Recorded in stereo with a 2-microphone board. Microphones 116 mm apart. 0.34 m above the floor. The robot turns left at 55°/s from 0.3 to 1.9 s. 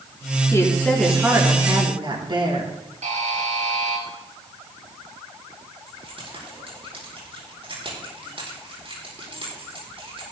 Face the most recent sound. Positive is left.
turn(degrees=-55)  # may be behind; listen again after turning